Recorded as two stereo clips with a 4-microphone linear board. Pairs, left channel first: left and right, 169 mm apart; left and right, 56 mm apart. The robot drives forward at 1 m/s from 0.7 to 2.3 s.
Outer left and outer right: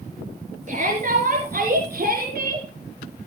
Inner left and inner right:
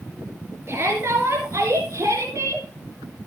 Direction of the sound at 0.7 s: 50° right (ahead or behind).